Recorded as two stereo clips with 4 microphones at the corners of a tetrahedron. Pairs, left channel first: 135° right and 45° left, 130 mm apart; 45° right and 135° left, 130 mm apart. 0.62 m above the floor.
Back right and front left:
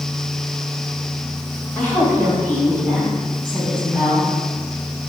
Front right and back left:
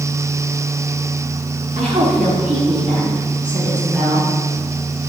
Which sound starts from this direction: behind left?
A woman speaking, at 1.8 s.